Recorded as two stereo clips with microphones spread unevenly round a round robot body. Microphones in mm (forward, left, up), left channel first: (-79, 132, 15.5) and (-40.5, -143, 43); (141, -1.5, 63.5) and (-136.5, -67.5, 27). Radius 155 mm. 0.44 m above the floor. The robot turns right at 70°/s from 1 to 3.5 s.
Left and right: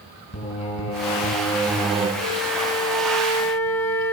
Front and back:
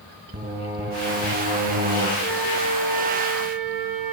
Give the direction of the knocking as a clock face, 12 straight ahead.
No knocking in this recording.